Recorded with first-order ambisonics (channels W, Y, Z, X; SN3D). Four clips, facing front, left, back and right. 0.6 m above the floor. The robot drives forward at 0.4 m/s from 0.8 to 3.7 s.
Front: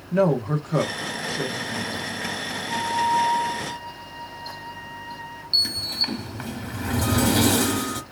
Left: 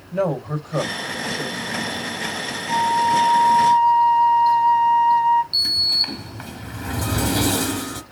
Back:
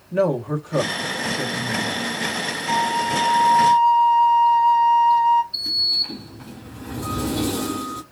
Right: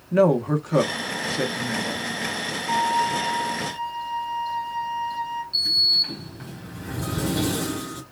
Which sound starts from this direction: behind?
A flute, at 2.7 s.